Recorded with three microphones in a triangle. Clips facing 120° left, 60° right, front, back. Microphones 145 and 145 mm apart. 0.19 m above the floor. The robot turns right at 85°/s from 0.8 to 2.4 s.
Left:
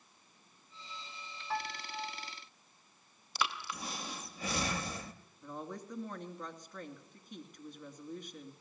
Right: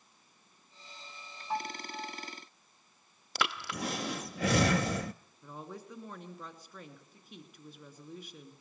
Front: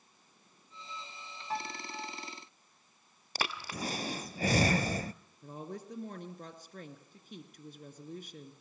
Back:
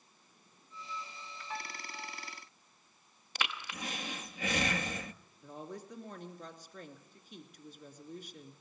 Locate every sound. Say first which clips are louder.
1.5 s a piano: right 3 dB, front 6 dB; straight ahead, 0.8 m; by 2.3 s 70° left, 0.8 m
3.4 s breathing: right 2 dB, front 3 dB; 55° right, 0.6 m
5.4 s a woman speaking: left 2 dB, front 2 dB; 25° left, 2.5 m